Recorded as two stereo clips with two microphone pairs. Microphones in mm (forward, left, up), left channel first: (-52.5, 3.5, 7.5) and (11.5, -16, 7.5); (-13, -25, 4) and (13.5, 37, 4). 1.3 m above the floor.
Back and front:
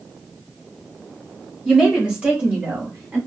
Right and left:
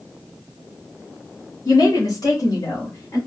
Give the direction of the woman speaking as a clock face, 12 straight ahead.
3 o'clock.